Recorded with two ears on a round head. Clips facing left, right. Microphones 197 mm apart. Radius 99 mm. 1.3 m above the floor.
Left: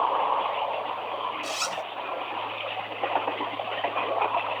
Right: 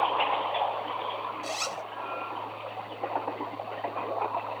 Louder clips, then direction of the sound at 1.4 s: Left 2 dB; 20° left (ahead or behind).